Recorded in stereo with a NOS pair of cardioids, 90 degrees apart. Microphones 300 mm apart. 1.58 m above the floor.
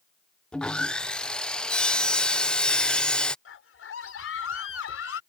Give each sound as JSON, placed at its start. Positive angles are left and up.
{"t": 0.5, "sound": "sawing", "azimuth_deg": 5}
{"t": 3.5, "sound": "a scream", "azimuth_deg": 45}